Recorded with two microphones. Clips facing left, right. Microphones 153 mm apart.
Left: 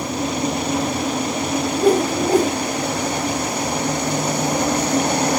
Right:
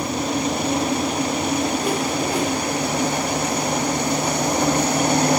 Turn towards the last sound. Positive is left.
turn(degrees=45)  # may be behind; listen again after turning